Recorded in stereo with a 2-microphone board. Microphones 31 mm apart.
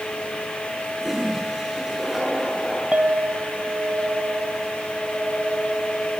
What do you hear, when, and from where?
1.0 s a toilet flushing: 5° right (ahead or behind), 10 m
2.9 s a clink: 40° right (ahead or behind), 1.0 m